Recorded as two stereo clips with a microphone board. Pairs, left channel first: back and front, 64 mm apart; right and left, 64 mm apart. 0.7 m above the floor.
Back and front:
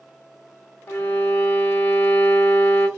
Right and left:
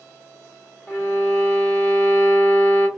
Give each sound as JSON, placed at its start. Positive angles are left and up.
{"t": 0.9, "sound": "a violin", "azimuth_deg": -135, "distance_m": 1.1}